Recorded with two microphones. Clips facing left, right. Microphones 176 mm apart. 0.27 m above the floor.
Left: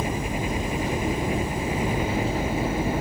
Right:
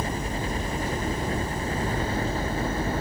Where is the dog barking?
I don't hear a dog barking.